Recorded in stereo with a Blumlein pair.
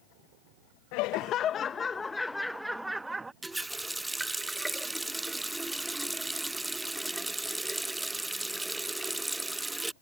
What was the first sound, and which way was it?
Laughter, 45° left.